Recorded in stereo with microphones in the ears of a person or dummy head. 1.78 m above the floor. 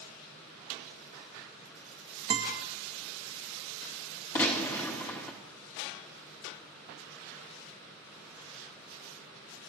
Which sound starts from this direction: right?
A guitar, at 2.3 s.